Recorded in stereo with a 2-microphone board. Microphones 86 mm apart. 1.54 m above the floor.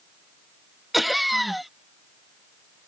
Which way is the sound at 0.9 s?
Centre (ahead or behind).